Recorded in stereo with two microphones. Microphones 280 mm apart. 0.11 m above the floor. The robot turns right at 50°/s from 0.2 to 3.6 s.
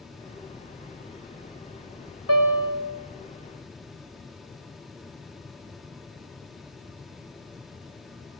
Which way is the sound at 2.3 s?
60° right (ahead or behind).